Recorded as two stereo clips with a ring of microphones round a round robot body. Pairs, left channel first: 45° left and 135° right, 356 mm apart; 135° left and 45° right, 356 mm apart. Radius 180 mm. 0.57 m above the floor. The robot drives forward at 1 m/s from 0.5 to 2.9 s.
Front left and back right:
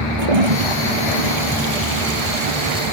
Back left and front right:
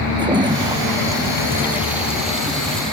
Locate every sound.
0.2 s a toilet flushing: 125° right; by 2.9 s 135° right